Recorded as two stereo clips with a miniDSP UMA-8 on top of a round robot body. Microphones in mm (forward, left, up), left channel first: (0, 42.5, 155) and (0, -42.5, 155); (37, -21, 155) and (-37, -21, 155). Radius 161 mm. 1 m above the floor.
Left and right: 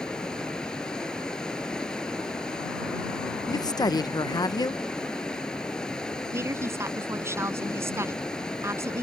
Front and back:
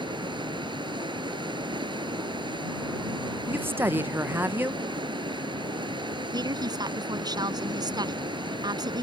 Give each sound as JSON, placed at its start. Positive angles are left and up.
{"t": 0.0, "sound": "running water", "azimuth_deg": 170}
{"t": 3.5, "sound": "a woman speaking", "azimuth_deg": 125}
{"t": 6.3, "sound": "a woman speaking", "azimuth_deg": -150}